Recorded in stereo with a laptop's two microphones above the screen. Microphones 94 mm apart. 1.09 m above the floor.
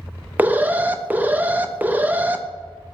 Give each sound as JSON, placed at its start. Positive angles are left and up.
{"t": 0.4, "sound": "an alarm", "side_deg": -20, "distance_m": 0.6}